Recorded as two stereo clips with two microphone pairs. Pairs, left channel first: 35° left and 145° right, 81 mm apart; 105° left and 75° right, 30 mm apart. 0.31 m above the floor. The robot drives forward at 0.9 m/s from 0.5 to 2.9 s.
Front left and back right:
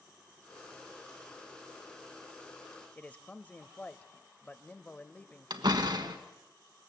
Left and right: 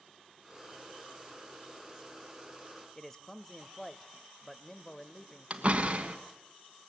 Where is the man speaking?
55° left, 0.9 m.